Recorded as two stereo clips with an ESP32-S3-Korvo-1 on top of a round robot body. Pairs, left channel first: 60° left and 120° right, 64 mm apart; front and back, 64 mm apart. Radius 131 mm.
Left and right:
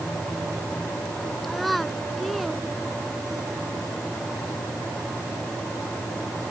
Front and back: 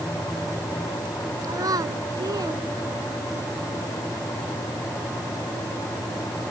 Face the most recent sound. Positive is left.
turn(degrees=155)